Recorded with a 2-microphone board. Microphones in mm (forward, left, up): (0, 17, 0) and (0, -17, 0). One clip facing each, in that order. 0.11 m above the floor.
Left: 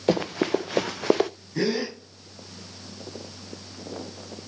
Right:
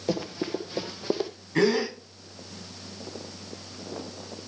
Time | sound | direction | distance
0.1 | running footsteps | 50° left (ahead or behind) | 1.2 m
1.6 | a gasp | 50° right (ahead or behind) | 8.5 m